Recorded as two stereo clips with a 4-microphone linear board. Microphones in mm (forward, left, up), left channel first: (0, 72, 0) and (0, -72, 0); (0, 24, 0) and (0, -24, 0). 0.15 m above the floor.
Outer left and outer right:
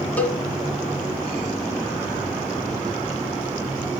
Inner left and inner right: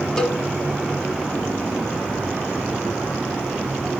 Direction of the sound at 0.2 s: 10° left (ahead or behind).